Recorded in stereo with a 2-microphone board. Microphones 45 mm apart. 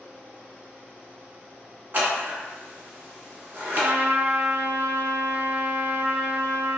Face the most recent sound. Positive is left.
turn(degrees=-55)  # may be behind; listen again after turning